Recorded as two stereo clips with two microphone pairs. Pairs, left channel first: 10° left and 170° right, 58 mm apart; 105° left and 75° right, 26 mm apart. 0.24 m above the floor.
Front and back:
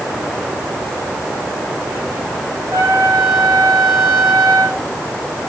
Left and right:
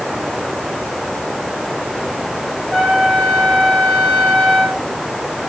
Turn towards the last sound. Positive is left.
turn(degrees=-125)